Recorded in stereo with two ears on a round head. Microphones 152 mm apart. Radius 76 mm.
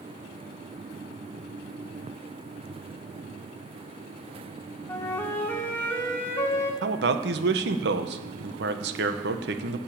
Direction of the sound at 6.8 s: 70° right (ahead or behind).